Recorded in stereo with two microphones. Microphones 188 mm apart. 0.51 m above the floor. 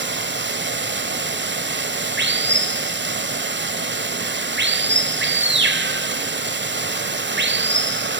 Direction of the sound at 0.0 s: 75° right (ahead or behind).